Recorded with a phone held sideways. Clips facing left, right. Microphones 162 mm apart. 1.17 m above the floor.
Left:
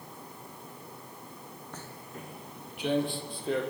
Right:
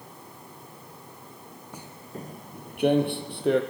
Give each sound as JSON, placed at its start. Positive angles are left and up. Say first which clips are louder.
{"t": 1.7, "sound": "footsteps", "louder": "right 6 dB", "side_deg": -10, "distance_m": 1.2}